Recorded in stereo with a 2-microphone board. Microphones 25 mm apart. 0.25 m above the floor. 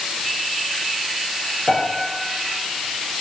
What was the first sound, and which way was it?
A piano, 20° left (ahead or behind).